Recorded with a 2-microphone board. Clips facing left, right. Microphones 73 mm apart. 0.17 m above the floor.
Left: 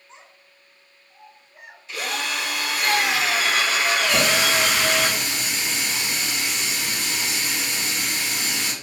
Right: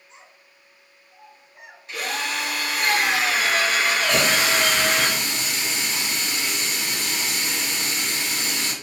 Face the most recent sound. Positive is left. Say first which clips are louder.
# even
turn(degrees=5)  # may be behind; listen again after turning